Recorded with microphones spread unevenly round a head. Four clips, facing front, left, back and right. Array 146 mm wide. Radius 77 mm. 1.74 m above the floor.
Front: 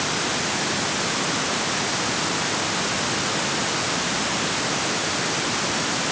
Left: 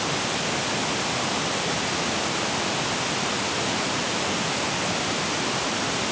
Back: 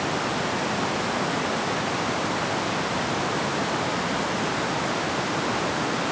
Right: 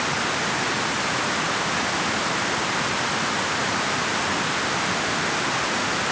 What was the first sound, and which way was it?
Only background noise.